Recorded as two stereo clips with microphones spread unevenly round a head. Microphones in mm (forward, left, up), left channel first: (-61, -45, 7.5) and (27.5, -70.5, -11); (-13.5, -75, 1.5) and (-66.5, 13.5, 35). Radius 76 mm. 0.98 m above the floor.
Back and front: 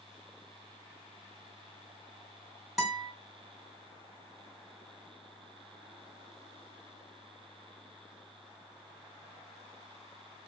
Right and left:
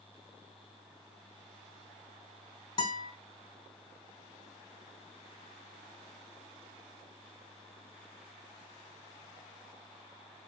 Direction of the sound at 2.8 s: 105° right.